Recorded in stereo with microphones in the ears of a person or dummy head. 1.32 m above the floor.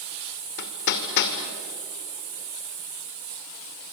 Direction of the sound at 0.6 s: 60° left (ahead or behind).